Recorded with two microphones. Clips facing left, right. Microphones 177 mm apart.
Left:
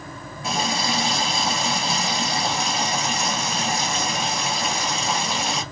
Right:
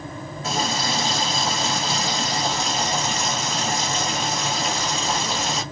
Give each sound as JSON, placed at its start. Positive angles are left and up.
{"t": 0.4, "sound": "a running tap", "side_deg": 10, "distance_m": 1.3}